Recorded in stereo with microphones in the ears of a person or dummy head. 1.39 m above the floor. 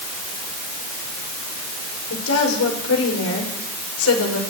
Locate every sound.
2.1 s a woman speaking: 85° left, 6.5 m